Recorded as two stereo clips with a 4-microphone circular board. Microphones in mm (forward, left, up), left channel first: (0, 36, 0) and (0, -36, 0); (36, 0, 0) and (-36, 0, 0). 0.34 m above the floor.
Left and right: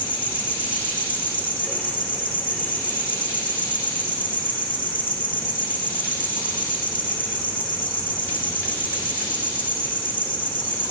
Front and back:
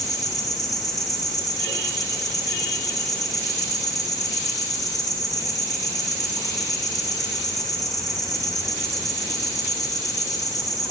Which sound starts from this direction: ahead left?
An insect, at 0.0 s.